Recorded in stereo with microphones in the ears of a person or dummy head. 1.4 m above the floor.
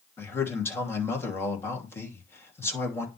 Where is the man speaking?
15° left (ahead or behind), 2.5 m.